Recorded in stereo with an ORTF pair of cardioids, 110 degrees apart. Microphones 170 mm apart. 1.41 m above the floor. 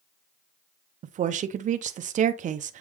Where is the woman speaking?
45° right, 0.6 m.